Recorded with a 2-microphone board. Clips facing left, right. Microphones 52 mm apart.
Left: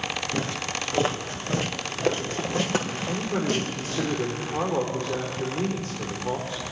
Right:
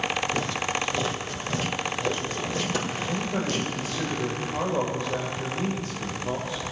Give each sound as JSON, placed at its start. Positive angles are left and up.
{"t": 0.3, "sound": "footsteps", "side_deg": 30, "distance_m": 1.7}
{"t": 3.1, "sound": "a man speaking", "side_deg": 40, "distance_m": 6.5}